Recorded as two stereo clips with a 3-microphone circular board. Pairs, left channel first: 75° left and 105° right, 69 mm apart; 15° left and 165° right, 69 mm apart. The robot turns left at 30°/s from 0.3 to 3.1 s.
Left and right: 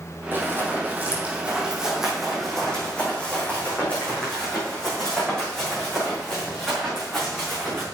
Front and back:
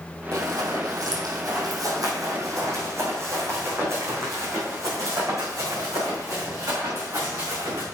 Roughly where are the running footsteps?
Behind right.